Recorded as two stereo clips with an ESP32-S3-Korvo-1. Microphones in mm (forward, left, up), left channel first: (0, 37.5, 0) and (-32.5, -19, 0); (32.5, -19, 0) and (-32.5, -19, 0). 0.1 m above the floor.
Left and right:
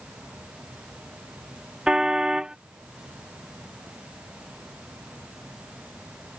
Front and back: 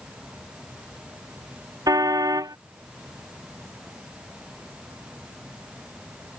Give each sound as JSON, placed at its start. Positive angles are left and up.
{"t": 1.9, "sound": "a car horn", "azimuth_deg": 160}